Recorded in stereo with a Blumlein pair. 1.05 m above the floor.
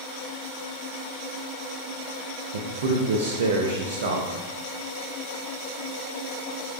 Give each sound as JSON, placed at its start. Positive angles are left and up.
{"t": 2.5, "sound": "a man speaking", "azimuth_deg": -60, "distance_m": 0.5}